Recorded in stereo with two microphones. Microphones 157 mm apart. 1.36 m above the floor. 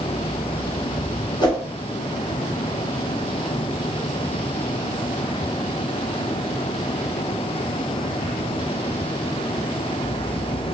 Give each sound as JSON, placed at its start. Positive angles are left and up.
{"t": 1.4, "sound": "a whoosh", "side_deg": 25, "distance_m": 1.0}